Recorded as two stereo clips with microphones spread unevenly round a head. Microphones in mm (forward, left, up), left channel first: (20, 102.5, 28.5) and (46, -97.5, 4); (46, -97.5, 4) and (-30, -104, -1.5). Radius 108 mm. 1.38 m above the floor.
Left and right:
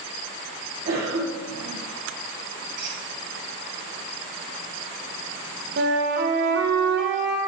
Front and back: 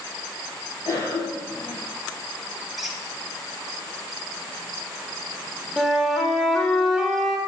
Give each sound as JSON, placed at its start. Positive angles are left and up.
{"t": 0.8, "sound": "a cough", "azimuth_deg": -50, "distance_m": 1.5}
{"t": 2.8, "sound": "a squeak", "azimuth_deg": -85, "distance_m": 1.2}
{"t": 5.8, "sound": "a flute", "azimuth_deg": -75, "distance_m": 1.2}